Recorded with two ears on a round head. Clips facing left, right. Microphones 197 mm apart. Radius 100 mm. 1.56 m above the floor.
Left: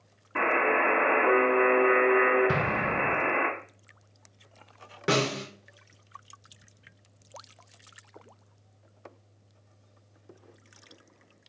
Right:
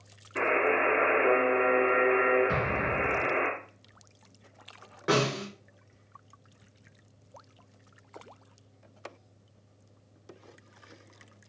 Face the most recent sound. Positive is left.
turn(degrees=35)  # may be behind; listen again after turning